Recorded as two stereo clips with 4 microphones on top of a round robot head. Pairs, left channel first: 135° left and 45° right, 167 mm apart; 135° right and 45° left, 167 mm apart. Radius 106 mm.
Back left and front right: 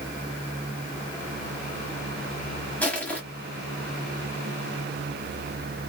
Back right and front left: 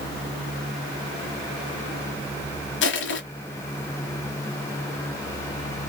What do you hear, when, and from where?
2.8 s crushing: 145° right, 1.3 m